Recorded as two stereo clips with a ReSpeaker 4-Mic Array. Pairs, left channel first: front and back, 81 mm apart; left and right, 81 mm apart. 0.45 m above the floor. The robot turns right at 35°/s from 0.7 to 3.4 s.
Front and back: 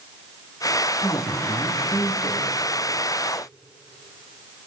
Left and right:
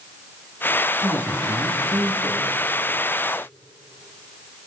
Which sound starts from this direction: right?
A man speaking, at 1.0 s.